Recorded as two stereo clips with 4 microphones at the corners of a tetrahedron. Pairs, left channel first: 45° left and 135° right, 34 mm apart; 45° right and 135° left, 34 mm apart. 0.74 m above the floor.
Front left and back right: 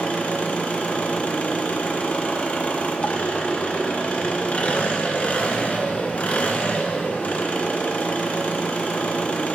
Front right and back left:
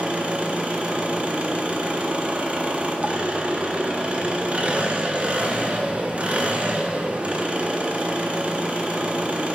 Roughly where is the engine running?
Left.